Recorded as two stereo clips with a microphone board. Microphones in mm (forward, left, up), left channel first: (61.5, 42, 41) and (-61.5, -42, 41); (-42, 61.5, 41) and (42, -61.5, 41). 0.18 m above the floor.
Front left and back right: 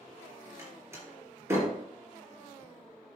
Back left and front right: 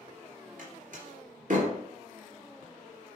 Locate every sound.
0.6 s a door slam: 75° right, 3 m